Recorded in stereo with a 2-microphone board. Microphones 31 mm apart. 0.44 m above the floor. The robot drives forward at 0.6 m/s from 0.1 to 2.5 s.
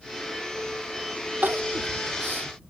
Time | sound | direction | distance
1.4 | crying | 80° right | ?